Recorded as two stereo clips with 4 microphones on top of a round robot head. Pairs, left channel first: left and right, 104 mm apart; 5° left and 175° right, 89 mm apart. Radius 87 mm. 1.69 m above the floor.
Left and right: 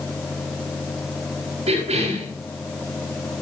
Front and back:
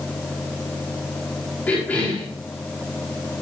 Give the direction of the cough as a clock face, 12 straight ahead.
2 o'clock.